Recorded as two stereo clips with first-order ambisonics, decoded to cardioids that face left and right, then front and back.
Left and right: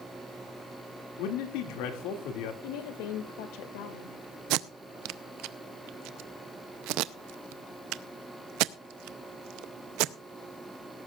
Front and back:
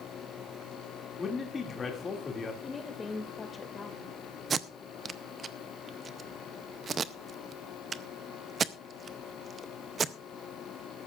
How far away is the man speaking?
About 2 m.